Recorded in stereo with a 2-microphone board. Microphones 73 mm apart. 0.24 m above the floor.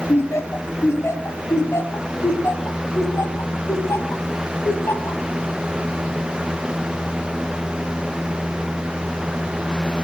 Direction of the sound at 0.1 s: 35° left (ahead or behind).